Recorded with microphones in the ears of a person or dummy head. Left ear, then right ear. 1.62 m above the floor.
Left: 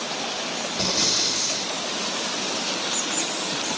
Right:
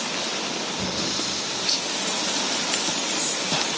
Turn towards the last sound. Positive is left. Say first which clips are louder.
# left 8 dB
turn(degrees=75)  # may be behind; listen again after turning